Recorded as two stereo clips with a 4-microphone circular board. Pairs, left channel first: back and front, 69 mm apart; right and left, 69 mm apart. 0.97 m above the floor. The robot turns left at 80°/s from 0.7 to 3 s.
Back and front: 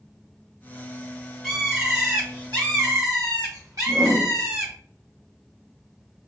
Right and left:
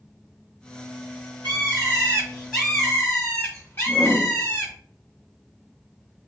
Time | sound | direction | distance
1.4 | a bird | 95° left | 1.6 m
3.9 | a whoosh | 15° right | 1.0 m